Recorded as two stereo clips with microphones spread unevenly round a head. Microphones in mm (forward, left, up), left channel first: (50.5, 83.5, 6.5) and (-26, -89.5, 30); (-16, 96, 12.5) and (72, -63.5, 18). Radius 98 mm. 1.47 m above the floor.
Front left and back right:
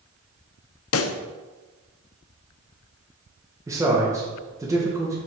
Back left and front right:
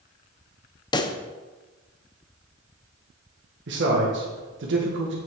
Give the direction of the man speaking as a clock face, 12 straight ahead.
1 o'clock.